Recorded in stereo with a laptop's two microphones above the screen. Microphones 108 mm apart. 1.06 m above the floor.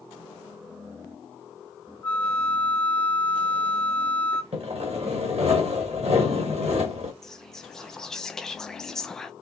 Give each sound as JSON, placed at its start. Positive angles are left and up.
{"t": 2.0, "sound": "a flute", "side_deg": 10, "distance_m": 1.0}
{"t": 4.5, "sound": "sawing", "side_deg": -70, "distance_m": 1.6}
{"t": 7.2, "sound": "whispering", "side_deg": 5, "distance_m": 0.6}